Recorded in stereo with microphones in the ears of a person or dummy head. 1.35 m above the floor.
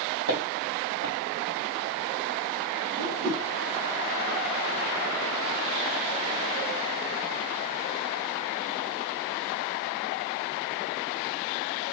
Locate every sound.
0.3 s footsteps: 50° right (ahead or behind), 2.5 m
3.0 s a whoosh: 45° right (ahead or behind), 0.9 m